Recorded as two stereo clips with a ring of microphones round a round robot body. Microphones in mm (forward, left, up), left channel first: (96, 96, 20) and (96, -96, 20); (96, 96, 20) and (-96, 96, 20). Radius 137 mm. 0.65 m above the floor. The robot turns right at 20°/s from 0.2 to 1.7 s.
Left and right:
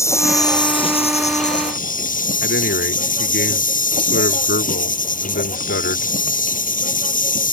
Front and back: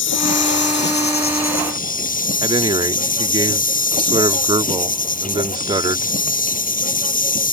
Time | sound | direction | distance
0.0 | an insect | 15° left | ?
2.4 | a man speaking | 120° left | ?